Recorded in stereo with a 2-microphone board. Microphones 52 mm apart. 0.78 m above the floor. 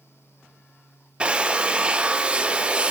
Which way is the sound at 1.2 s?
20° right (ahead or behind).